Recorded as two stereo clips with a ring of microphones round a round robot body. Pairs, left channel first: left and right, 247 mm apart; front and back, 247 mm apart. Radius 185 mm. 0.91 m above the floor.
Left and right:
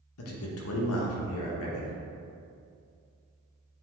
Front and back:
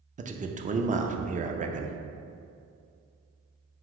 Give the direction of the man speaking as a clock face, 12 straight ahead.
8 o'clock.